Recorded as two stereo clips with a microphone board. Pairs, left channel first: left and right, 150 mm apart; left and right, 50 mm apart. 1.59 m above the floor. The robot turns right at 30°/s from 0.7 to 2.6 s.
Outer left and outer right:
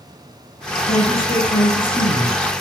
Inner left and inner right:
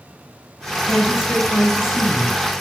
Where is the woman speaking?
70° left, 7.5 m; by 2.4 s 115° left, 7.5 m.